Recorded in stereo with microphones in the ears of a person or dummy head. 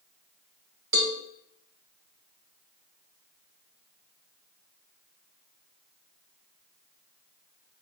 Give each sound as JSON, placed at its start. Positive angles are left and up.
{"t": 0.9, "sound": "a cowbell", "side_deg": -65, "distance_m": 1.6}